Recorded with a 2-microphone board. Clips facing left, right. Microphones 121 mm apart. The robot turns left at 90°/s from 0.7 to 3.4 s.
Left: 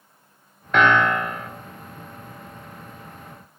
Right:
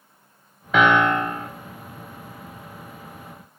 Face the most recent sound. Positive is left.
turn(degrees=115)